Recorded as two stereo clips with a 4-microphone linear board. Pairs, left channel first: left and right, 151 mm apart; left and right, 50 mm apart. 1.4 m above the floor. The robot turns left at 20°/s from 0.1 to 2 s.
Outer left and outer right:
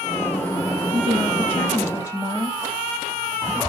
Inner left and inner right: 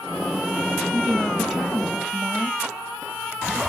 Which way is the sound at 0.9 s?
30° right (ahead or behind).